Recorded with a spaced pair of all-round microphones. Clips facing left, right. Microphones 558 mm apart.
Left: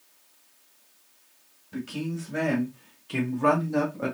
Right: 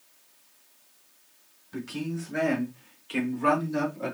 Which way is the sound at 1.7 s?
50° left (ahead or behind).